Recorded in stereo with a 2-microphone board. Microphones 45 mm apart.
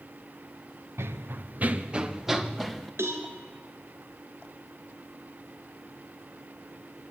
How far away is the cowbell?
About 3.5 m.